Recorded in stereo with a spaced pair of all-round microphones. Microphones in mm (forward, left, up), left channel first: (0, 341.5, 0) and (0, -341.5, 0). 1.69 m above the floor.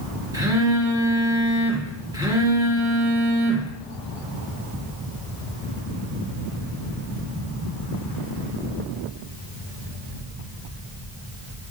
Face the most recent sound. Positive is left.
turn(degrees=-5)  # may be behind; listen again after turning